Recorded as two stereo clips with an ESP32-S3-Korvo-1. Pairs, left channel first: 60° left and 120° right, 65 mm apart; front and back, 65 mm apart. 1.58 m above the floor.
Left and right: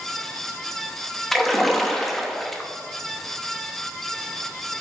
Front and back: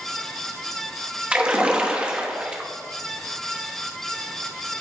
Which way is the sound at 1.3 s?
140° left.